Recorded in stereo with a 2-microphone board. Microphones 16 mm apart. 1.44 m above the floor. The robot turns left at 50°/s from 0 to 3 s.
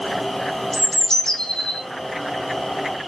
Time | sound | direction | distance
0.7 | a bird | 160° left | 0.5 m